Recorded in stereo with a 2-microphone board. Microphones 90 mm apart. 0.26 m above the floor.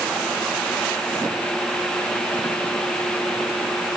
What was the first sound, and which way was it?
Only background noise.